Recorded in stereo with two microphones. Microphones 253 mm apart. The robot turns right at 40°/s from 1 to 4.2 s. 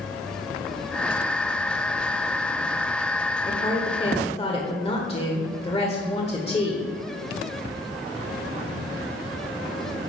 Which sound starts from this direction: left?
A woman speaking, at 3.5 s.